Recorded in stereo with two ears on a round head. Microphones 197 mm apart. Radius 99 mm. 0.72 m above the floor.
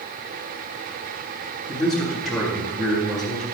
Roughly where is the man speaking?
Centre.